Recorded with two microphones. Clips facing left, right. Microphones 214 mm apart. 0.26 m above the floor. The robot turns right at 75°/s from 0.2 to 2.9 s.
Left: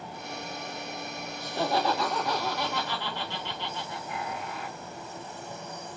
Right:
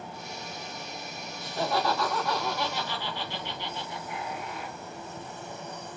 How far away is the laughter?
About 1.7 m.